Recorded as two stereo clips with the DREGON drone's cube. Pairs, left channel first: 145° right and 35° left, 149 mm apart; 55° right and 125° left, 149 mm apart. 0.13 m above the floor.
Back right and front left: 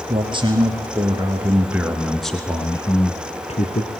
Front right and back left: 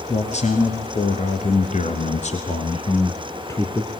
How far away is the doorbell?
No doorbell in this recording.